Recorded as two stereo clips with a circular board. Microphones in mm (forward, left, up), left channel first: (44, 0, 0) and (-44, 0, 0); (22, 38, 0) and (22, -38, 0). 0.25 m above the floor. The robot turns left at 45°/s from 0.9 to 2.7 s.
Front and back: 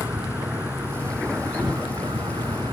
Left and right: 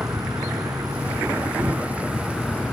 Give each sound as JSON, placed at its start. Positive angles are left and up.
{"t": 0.0, "sound": "an insect", "azimuth_deg": -120, "distance_m": 1.3}